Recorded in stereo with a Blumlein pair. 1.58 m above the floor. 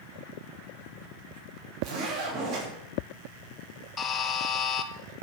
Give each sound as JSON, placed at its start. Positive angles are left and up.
{"t": 1.8, "sound": "a zipper", "azimuth_deg": -40, "distance_m": 6.0}
{"t": 4.0, "sound": "a buzzer", "azimuth_deg": 20, "distance_m": 1.3}